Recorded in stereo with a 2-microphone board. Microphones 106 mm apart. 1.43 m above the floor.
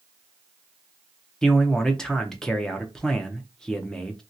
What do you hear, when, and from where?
1.4 s a man speaking: 5° left (ahead or behind), 0.6 m